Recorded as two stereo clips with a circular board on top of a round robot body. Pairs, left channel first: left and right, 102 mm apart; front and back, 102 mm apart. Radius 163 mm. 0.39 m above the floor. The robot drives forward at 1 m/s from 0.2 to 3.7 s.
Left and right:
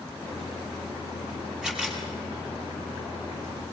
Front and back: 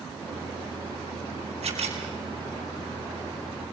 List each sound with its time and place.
1.6 s a camera shutter: 175° right, 5.5 m